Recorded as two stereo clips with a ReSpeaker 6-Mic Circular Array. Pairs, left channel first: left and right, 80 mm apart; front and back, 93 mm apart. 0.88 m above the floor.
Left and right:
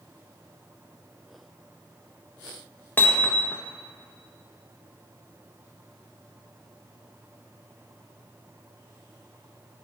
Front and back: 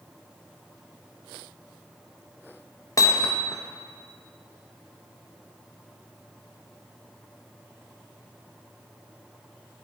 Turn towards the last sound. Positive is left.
turn(degrees=35)